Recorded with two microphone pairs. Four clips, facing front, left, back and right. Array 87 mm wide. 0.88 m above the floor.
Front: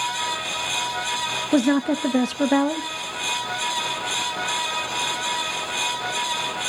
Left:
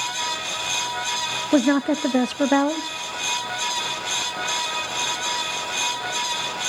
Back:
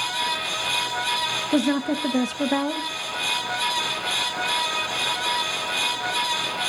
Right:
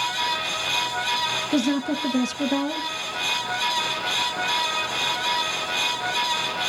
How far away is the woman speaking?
About 0.5 m.